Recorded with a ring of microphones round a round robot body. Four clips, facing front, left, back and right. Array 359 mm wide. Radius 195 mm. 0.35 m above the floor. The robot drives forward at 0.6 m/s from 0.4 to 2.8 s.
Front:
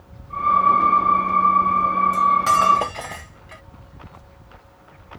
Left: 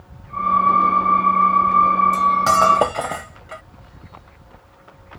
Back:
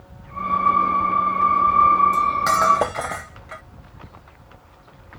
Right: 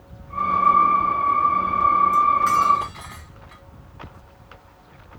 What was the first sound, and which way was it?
Cutlery clinking, 90° left.